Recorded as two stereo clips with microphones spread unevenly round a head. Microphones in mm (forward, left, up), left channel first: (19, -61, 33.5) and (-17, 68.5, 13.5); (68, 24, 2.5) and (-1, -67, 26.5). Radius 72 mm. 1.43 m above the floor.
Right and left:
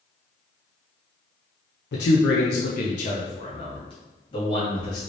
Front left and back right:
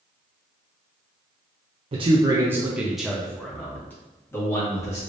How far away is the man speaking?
About 0.6 m.